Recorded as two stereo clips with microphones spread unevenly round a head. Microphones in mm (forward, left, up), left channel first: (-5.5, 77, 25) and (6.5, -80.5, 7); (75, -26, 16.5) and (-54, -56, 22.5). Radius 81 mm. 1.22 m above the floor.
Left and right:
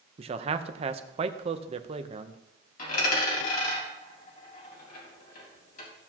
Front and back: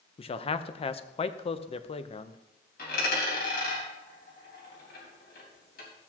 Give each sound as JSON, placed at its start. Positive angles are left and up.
{"t": 0.2, "sound": "a man speaking", "azimuth_deg": -30, "distance_m": 0.9}
{"t": 2.8, "sound": "a dropped coin", "azimuth_deg": 55, "distance_m": 4.0}